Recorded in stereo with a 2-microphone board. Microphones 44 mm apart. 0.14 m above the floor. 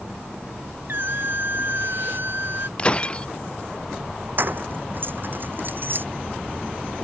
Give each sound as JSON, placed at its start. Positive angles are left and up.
{"t": 0.9, "sound": "a squeak", "side_deg": -55}
{"t": 2.8, "sound": "breaking glass", "side_deg": 25}
{"t": 4.4, "sound": "keys jangling", "side_deg": -50}